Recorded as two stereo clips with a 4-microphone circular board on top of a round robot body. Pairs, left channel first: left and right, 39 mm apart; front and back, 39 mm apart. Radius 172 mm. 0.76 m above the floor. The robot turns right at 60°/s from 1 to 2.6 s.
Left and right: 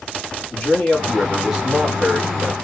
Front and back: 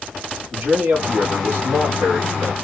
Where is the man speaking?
155° left, 2.5 m; by 2.5 s 110° right, 2.5 m.